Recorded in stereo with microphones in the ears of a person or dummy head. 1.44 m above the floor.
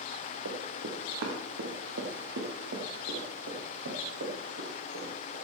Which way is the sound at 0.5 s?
70° right (ahead or behind).